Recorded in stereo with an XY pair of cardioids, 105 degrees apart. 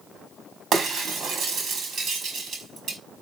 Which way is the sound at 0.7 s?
55° right.